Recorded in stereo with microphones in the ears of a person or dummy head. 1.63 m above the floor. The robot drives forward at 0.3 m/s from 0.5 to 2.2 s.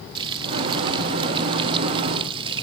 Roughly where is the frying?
Right.